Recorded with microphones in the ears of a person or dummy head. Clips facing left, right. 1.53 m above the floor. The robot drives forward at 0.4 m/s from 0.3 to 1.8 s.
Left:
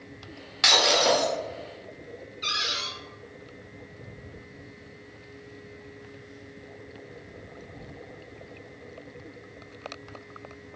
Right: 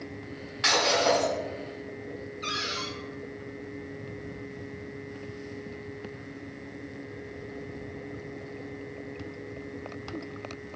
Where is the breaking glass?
55° left (ahead or behind), 1.3 m; by 1.3 s 60° left (ahead or behind), 1.2 m.